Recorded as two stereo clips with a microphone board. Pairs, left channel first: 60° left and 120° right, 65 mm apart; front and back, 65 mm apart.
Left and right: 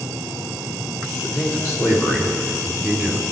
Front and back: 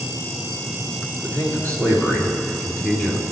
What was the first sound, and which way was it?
A man speaking, 50° left.